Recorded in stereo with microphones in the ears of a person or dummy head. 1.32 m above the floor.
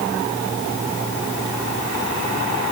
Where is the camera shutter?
I don't hear a camera shutter.